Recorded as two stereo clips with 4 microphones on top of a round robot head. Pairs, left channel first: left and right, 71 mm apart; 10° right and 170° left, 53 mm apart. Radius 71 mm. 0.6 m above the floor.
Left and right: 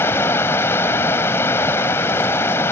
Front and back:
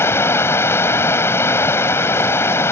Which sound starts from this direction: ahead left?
Running water, at 0.0 s.